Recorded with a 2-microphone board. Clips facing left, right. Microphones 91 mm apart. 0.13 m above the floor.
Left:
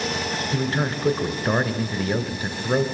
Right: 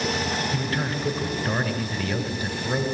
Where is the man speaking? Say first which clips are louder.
Left 3 dB; 30° left (ahead or behind), 1.7 m.